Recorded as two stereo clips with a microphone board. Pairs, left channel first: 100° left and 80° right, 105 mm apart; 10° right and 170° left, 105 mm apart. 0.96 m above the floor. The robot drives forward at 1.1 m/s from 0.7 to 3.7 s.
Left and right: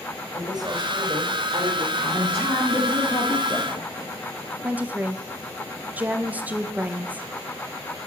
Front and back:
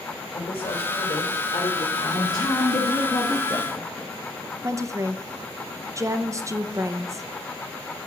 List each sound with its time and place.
0.3 s a woman speaking: 30° right, 4 m; by 1.9 s 40° right, 3 m
2.0 s a woman speaking: 30° left, 3 m; by 4.1 s 70° left, 1.5 m
4.6 s a woman speaking: 145° right, 0.7 m